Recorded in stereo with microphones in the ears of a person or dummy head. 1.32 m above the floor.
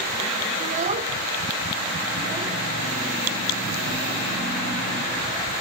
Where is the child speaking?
45° right (ahead or behind), 0.7 m; by 5.6 s 25° right (ahead or behind), 5.5 m.